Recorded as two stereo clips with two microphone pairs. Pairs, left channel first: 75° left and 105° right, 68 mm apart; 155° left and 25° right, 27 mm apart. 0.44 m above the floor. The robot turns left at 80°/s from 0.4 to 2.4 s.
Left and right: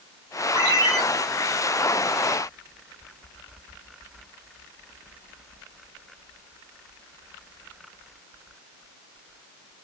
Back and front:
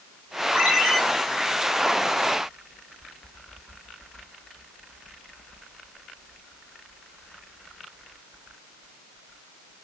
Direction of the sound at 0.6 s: 85° right.